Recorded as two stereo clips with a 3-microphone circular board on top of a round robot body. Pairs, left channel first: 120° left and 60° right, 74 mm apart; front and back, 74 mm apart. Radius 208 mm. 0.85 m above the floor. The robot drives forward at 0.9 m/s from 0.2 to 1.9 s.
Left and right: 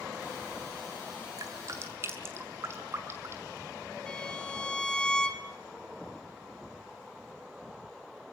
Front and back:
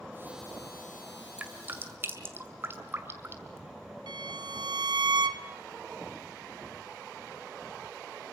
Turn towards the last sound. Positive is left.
turn(degrees=-160)